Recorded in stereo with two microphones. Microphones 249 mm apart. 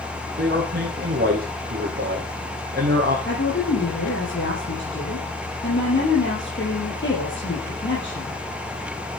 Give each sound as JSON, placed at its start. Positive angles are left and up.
{"t": 0.4, "sound": "a man speaking", "side_deg": -40, "distance_m": 5.5}
{"t": 3.3, "sound": "a woman speaking", "side_deg": 50, "distance_m": 5.5}